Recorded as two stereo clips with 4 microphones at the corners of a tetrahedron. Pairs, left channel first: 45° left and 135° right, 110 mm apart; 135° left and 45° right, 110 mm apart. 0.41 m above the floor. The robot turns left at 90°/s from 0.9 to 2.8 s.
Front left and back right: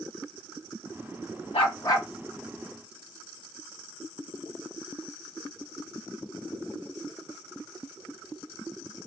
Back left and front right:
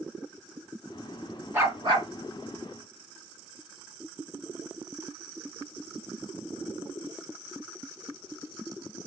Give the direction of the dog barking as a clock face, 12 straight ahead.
11 o'clock.